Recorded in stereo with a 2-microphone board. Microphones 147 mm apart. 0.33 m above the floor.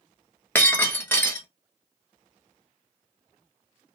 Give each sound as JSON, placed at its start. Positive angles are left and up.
{"t": 0.6, "sound": "breaking glass", "side_deg": 15, "distance_m": 0.7}